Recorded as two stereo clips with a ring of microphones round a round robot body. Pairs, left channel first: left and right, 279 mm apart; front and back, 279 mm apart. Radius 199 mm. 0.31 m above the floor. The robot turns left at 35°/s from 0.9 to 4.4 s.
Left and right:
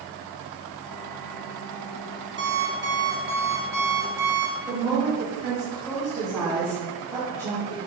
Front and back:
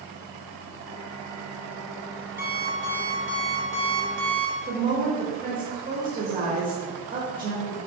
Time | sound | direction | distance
2.4 | an alarm clock | 105° right | 0.9 m
4.7 | a woman speaking | 165° left | 0.9 m